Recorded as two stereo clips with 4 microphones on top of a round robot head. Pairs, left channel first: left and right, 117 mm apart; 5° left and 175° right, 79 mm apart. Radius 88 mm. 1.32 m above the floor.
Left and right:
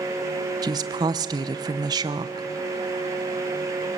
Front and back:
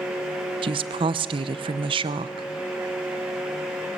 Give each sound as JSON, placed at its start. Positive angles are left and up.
{"t": 0.6, "sound": "a woman speaking", "azimuth_deg": -150, "distance_m": 0.8}